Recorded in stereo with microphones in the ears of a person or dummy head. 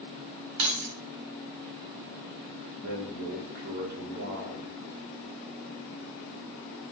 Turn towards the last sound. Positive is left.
turn(degrees=-60)  # may be behind; listen again after turning